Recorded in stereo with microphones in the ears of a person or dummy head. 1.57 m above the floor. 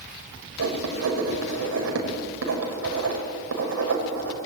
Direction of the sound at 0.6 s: 80° right.